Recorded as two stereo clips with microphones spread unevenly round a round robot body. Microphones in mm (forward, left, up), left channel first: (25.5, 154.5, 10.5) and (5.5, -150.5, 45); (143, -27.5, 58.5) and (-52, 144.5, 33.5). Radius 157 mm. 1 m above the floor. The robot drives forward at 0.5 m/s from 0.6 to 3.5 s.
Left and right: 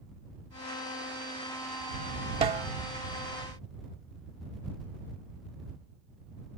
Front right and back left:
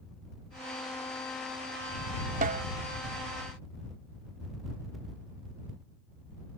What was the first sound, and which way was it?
A snare drum, 155° right.